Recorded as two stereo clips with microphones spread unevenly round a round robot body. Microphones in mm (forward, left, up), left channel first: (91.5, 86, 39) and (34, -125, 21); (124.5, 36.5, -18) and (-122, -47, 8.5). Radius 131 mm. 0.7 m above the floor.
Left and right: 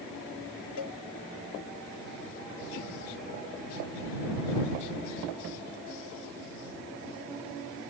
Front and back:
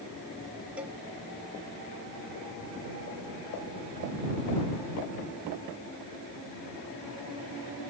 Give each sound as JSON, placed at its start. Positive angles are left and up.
{"t": 0.8, "sound": "a cowbell", "azimuth_deg": 115}